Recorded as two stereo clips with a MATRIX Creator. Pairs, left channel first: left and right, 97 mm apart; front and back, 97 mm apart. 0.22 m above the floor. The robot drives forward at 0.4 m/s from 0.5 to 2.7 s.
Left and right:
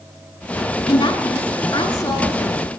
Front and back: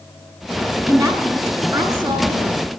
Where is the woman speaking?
125° left, 1.7 m; by 2.7 s 145° left, 2 m.